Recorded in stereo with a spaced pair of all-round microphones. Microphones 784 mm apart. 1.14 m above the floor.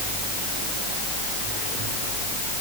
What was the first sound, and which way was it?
Only background noise.